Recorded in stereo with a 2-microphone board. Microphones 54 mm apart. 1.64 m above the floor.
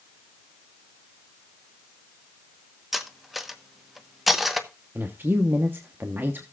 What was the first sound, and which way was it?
Cutlery clinking, 5° right (ahead or behind).